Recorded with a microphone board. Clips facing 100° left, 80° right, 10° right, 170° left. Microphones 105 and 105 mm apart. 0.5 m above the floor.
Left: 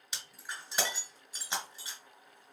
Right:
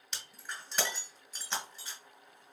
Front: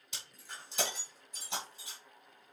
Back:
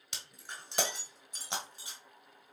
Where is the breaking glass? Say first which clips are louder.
Even, back 2 dB; straight behind, 1.7 m.